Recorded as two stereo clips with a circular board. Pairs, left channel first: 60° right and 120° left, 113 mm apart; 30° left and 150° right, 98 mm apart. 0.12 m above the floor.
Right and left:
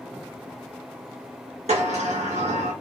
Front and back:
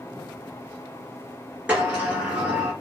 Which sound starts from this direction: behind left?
A sliding door, at 1.7 s.